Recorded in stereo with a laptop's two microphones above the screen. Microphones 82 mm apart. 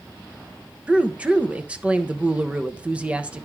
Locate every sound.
0.9 s a woman speaking: 15° right (ahead or behind), 1.0 m